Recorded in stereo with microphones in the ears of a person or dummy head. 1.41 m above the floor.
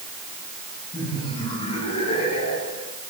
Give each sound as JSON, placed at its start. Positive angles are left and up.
{"t": 0.9, "sound": "laughter", "side_deg": 25, "distance_m": 7.0}